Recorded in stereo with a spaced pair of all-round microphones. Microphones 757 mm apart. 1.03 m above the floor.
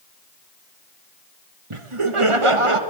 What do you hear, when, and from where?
1.7 s laughter: 40° right (ahead or behind), 1.2 m